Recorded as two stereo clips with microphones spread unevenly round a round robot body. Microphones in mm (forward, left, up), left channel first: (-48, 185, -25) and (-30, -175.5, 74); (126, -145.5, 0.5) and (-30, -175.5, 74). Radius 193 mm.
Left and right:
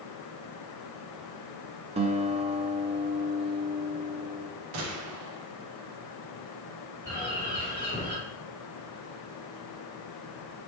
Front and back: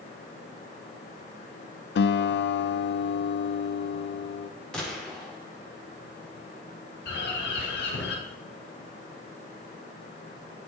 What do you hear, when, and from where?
1.9 s a guitar: 15° right, 0.6 m
4.7 s a gunshot: 70° right, 3 m
7.0 s a bird: 10° left, 4.5 m